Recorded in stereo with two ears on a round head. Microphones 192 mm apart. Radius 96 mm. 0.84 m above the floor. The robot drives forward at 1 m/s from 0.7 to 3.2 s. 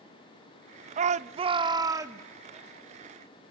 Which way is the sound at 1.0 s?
35° right (ahead or behind).